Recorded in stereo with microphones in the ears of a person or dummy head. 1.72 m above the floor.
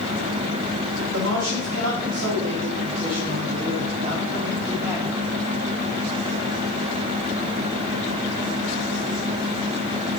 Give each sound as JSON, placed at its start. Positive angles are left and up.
{"t": 1.1, "sound": "a man speaking", "side_deg": -85, "distance_m": 2.5}